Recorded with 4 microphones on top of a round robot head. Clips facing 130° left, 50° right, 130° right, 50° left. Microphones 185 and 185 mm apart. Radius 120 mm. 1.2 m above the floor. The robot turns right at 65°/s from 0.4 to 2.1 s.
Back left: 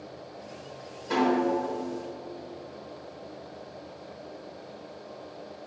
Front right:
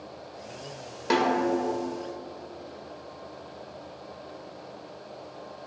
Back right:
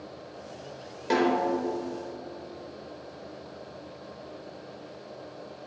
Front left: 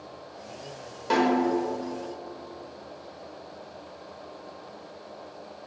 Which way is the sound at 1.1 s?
50° right.